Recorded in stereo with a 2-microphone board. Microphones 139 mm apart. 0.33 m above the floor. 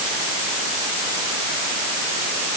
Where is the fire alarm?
I don't hear a fire alarm.